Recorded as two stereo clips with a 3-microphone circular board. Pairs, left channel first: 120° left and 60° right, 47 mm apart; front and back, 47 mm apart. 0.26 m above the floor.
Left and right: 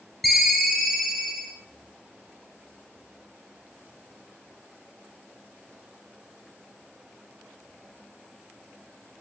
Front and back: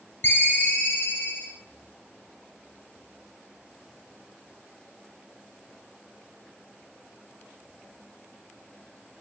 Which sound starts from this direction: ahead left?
A ringtone, at 0.2 s.